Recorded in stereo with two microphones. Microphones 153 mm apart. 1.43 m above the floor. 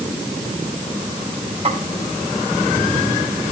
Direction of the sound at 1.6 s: 40° right (ahead or behind).